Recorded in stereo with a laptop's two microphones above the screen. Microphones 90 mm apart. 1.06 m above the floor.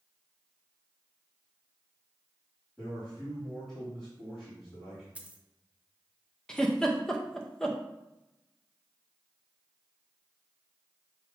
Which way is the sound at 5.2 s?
15° right (ahead or behind).